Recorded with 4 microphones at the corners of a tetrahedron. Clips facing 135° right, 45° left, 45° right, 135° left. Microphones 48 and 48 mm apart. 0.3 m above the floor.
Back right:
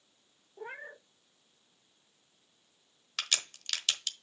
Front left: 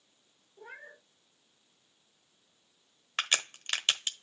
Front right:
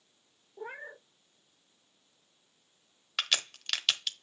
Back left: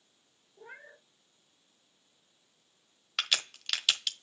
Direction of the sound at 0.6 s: 85° right.